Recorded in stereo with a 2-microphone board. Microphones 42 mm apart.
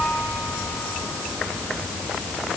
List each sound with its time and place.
Only background noise.